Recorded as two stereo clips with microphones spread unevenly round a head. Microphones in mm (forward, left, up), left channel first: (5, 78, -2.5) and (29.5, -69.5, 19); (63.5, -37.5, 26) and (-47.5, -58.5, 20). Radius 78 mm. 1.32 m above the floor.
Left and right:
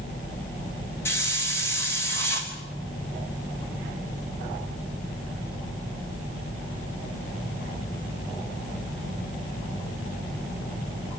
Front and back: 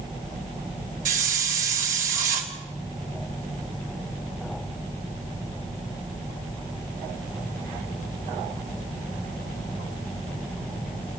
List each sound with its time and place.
1.1 s a hiss: 175° left, 3 m